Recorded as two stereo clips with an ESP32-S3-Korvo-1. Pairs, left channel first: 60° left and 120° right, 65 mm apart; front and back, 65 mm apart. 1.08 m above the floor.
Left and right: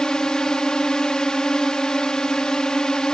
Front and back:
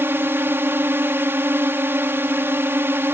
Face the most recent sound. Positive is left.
turn(degrees=135)